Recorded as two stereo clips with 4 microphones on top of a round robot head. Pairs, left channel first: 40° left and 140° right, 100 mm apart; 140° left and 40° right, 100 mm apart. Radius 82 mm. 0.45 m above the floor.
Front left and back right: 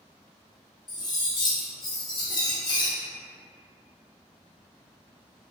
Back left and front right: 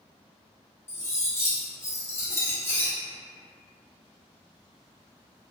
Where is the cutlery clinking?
80° left, 0.7 m.